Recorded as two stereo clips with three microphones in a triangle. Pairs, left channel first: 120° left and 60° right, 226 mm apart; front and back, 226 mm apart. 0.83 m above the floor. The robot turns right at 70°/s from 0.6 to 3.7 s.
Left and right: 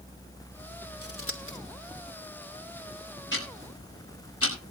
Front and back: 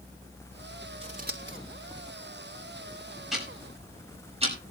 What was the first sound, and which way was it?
Scissors, 115° left.